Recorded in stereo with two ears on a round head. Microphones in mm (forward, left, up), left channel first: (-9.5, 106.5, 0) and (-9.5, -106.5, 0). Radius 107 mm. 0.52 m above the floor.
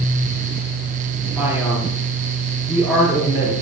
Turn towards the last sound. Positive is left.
turn(degrees=-5)  # may be behind; listen again after turning